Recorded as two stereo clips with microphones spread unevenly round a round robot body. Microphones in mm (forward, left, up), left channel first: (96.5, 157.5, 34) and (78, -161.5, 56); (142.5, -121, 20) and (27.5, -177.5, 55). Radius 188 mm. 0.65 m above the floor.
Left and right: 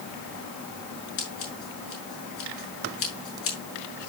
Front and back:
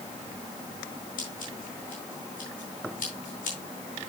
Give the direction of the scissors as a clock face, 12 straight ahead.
11 o'clock.